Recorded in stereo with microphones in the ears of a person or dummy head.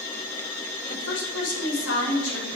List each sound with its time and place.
0.9 s a woman speaking: 75° left (ahead or behind), 4.5 m; by 2.5 s 85° left, 4 m